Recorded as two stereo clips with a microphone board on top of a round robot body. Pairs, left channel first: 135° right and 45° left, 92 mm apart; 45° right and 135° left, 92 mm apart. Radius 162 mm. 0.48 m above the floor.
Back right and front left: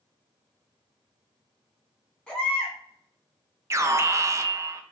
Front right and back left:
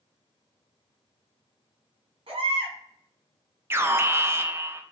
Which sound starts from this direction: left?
An alarm, at 3.7 s.